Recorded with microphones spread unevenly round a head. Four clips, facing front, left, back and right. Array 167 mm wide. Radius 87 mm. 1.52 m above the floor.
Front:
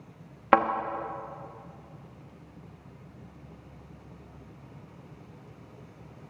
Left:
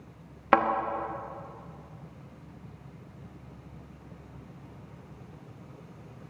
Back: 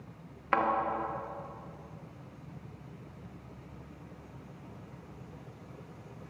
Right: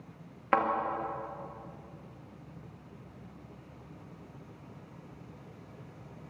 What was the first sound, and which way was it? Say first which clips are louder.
A thud: left 5 dB, front 7 dB; 25° left.